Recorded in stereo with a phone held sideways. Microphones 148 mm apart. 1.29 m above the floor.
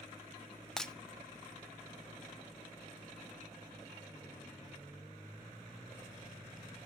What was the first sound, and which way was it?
Breaking glass, 5° left (ahead or behind).